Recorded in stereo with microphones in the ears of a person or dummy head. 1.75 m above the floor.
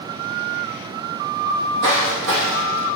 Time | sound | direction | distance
1.5 | footsteps | 60° right (ahead or behind) | 3.5 m